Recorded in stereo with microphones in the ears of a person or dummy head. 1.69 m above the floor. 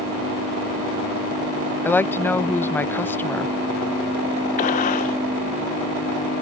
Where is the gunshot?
40° left (ahead or behind).